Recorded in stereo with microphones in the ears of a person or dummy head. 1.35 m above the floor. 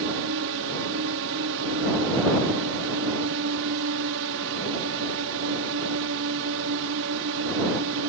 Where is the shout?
No shout in this recording.